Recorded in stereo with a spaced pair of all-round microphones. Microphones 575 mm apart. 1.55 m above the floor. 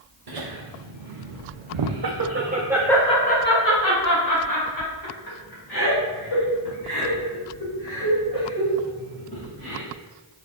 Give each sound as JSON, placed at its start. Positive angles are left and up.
{"t": 0.3, "sound": "laughter", "side_deg": -80, "distance_m": 1.2}